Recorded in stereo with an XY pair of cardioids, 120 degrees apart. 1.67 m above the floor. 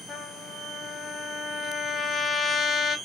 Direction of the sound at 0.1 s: 35° left.